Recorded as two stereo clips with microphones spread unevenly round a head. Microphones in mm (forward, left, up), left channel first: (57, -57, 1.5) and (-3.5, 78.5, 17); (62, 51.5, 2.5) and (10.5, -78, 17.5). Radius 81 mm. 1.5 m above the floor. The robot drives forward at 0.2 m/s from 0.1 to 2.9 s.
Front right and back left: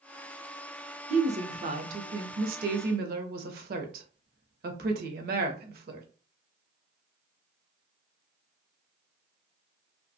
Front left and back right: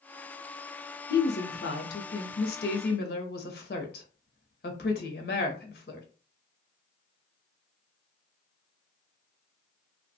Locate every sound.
1.1 s a woman speaking: 70° left, 0.7 m; by 6.1 s 105° left, 0.7 m